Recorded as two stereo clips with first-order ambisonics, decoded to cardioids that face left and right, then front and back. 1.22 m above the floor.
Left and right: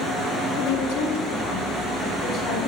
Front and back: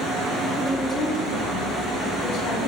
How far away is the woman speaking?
About 1.5 m.